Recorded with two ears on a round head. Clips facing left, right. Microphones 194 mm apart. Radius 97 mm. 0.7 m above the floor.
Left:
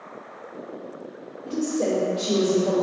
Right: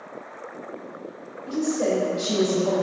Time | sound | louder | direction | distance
1.4 | a woman speaking | right 1 dB | 70° left (ahead or behind) | 1.6 m